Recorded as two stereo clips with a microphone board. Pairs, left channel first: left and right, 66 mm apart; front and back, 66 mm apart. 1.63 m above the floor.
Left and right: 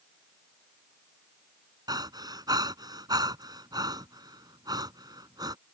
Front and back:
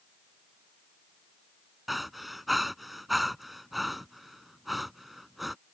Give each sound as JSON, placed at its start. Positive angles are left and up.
{"t": 1.9, "sound": "breathing", "azimuth_deg": -95}